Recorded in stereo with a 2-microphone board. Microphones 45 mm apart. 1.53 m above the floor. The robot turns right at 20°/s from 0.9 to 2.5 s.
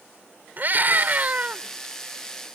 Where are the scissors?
I don't hear scissors.